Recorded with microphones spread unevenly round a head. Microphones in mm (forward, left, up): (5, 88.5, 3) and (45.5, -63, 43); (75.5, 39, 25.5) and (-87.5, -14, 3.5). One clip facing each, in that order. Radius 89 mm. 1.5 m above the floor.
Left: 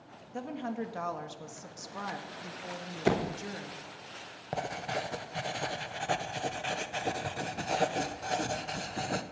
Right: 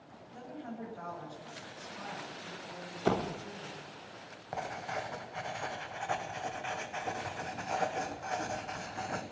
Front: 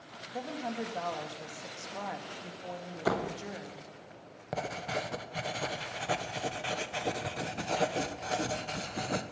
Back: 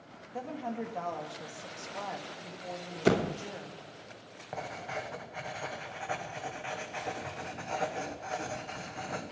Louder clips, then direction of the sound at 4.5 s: Left 3 dB, front 4 dB; 65° left.